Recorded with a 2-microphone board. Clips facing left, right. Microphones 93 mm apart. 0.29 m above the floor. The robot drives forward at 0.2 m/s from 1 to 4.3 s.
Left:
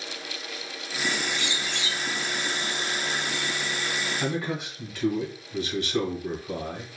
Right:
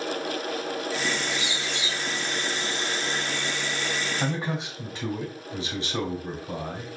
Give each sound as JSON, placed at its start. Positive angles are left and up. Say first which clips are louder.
{"t": 1.3, "sound": "a bird", "louder": "right 1 dB", "side_deg": -20, "distance_m": 1.5}
{"t": 4.2, "sound": "a man speaking", "louder": "even", "side_deg": -30, "distance_m": 1.2}